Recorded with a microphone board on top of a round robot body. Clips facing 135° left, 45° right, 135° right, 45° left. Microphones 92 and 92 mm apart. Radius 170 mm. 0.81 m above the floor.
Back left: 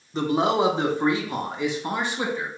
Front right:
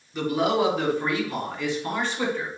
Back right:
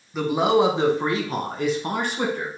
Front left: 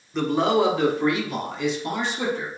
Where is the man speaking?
145° left, 1.0 m; by 2.5 s 150° right, 1.6 m.